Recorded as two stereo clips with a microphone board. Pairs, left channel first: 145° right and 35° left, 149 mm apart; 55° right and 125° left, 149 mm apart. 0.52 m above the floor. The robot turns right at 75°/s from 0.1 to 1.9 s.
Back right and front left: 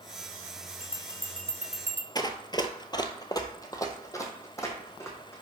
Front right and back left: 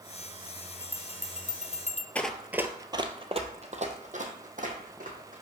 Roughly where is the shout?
I don't hear a shout.